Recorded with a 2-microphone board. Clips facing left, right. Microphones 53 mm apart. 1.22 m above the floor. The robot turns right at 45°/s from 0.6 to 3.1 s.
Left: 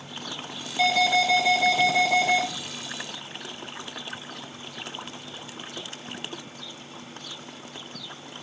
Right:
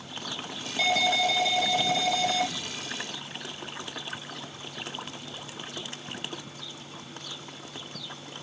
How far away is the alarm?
About 3 m.